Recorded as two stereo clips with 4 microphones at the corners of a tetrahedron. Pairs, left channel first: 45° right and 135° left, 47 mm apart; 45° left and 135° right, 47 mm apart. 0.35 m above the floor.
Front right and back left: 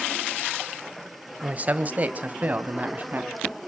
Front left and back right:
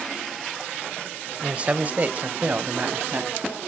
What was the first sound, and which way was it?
A man speaking, 170° left.